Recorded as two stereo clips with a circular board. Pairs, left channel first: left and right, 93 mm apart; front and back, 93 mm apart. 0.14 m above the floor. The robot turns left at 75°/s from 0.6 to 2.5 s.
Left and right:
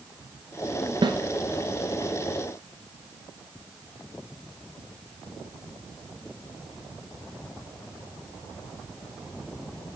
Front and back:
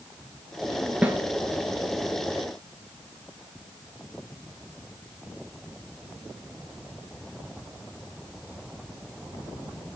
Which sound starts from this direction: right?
A snare drum, at 1.0 s.